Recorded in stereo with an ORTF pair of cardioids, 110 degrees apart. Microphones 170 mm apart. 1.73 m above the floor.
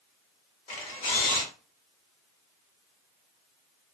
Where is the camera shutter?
50° left, 1.3 m.